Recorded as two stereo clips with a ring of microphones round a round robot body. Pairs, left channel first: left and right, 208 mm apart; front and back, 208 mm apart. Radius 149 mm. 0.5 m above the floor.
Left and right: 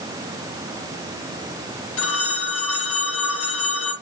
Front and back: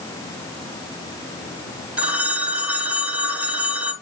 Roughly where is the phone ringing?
Left.